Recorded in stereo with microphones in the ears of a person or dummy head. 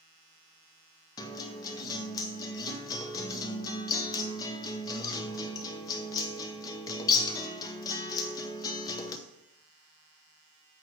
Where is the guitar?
20° left (ahead or behind), 0.8 m.